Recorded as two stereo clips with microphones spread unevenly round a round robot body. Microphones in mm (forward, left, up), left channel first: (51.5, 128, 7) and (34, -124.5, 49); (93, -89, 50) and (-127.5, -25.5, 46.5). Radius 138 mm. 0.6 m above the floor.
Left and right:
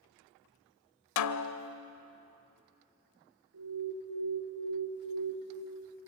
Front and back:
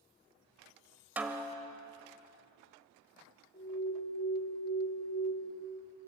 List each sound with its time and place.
1.2 s a snare drum: 80° left, 1.1 m
3.5 s an alarm: 65° right, 9.5 m